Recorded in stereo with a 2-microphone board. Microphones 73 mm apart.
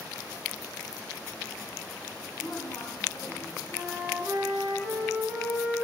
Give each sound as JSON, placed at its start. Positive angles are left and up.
{"t": 2.3, "sound": "a woman speaking", "side_deg": 40, "distance_m": 2.5}
{"t": 3.7, "sound": "a flute", "side_deg": -15, "distance_m": 3.5}